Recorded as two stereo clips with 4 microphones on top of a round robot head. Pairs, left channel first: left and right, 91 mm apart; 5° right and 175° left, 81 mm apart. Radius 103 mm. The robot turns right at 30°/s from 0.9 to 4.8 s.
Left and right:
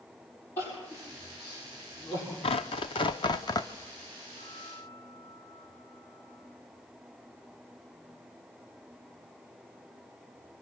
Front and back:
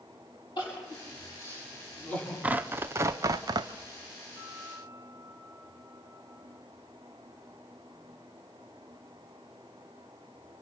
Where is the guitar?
115° left, 8.5 m; by 6.4 s 130° left, 8.5 m.